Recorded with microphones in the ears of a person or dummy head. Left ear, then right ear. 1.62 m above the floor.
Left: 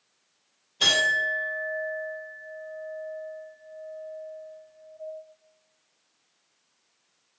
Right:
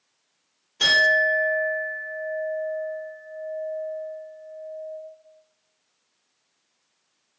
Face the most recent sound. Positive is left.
turn(degrees=-55)  # may be behind; listen again after turning